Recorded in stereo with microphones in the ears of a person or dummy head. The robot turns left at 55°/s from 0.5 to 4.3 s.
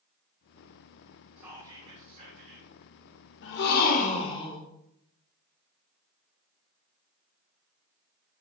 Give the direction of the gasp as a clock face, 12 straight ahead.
9 o'clock.